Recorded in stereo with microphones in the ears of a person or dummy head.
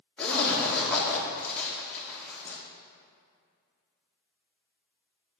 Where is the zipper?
10° left (ahead or behind), 1.8 m.